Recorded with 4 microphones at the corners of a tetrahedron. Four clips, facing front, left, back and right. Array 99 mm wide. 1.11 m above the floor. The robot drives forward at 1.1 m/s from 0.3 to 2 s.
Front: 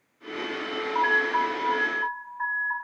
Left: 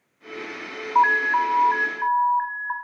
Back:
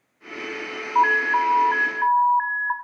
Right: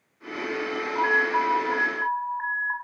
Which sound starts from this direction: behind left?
An alarm, at 0.9 s.